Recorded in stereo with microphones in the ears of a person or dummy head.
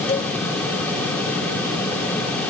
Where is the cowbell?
35° left (ahead or behind).